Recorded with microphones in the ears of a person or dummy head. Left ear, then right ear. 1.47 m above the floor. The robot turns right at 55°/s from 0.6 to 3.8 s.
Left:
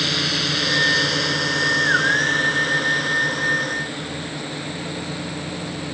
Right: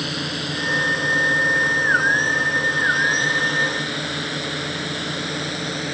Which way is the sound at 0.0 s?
30° left (ahead or behind).